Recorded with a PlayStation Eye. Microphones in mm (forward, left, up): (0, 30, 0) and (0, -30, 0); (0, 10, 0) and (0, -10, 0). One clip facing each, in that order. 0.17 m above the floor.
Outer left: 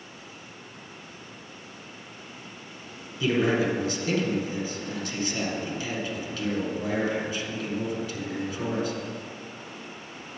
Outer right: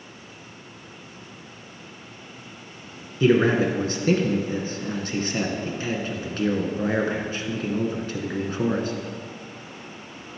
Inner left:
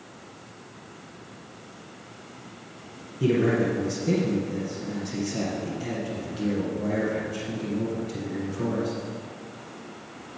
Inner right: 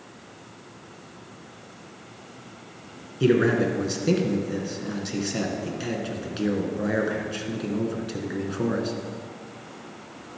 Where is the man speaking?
40° right (ahead or behind), 1.8 m.